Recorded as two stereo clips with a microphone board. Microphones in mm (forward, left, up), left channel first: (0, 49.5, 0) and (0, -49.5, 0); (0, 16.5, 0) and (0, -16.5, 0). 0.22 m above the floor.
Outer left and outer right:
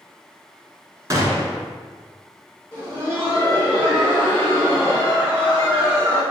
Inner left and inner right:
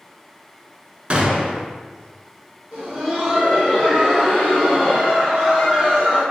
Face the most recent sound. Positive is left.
turn(degrees=-25)  # may be behind; listen again after turning